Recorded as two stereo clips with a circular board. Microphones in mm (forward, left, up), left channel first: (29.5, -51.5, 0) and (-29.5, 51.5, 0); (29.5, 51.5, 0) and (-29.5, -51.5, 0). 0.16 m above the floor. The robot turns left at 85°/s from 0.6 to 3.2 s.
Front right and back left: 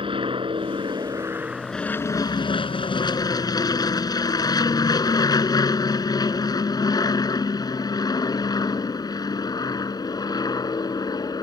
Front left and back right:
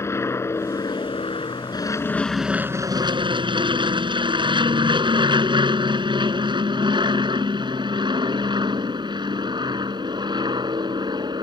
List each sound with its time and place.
0.0 s an aircraft: 120° left; by 11.4 s 95° right